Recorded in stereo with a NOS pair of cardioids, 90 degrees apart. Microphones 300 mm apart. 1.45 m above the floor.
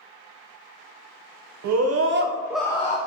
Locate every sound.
1.6 s a scream: 65° right, 1.1 m; by 3.0 s 30° left, 0.9 m